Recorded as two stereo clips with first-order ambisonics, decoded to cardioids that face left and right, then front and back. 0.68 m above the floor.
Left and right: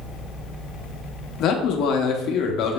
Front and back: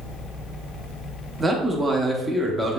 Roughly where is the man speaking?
Left.